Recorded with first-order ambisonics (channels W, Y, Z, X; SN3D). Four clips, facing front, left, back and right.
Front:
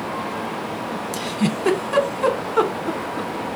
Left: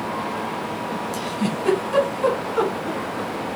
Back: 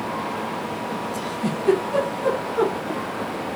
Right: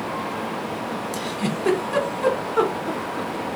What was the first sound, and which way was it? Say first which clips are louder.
A giggle: left 1 dB, front 3 dB; 5° right.